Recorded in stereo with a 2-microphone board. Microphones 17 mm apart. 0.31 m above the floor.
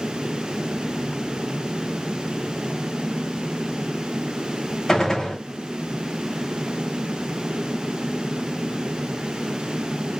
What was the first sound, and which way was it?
A gunshot, 30° left (ahead or behind).